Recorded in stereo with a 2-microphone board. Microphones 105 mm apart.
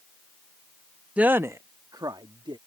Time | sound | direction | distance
1.2 | a woman speaking | 10° right (ahead or behind) | ?